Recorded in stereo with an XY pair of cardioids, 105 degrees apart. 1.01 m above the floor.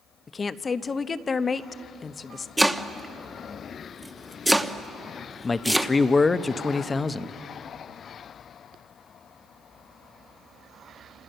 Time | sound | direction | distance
0.3 | a woman speaking | 35° left | 0.9 m
2.6 | chopping | 5° right | 1.2 m
5.4 | a man speaking | 25° left | 0.9 m